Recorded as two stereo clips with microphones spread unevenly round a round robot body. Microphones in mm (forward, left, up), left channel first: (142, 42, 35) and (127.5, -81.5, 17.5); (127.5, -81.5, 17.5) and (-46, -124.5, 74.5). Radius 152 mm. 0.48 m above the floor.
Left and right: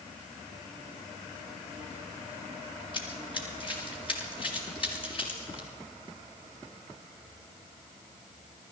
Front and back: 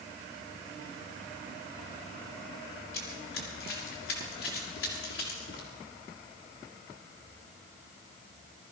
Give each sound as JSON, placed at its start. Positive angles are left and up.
{"t": 2.9, "sound": "running footsteps", "azimuth_deg": 35, "distance_m": 5.0}